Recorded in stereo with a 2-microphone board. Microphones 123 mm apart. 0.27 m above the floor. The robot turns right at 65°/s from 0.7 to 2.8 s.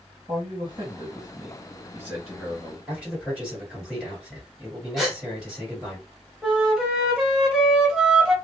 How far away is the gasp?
About 1.3 m.